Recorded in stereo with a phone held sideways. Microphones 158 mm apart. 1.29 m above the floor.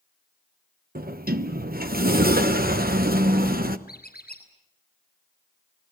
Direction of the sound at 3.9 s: 85° left.